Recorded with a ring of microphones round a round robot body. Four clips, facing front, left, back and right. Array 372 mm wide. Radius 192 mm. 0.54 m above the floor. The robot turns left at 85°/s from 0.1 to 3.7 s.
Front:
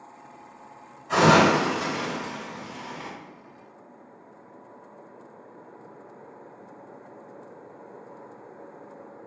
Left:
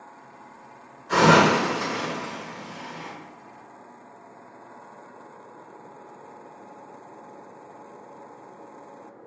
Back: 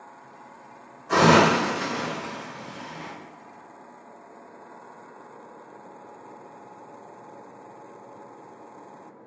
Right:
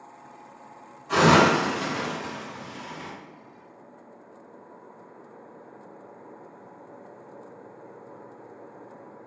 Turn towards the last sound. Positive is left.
turn(degrees=-55)